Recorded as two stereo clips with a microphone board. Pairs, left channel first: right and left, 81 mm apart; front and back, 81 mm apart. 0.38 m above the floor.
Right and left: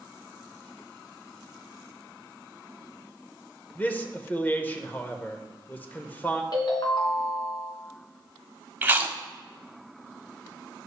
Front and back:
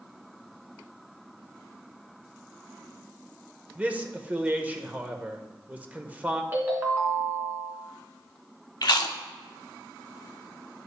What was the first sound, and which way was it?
A man speaking, 130° right.